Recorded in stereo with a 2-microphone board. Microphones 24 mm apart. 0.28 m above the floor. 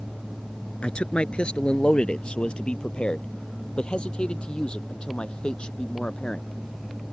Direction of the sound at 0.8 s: 50° left (ahead or behind).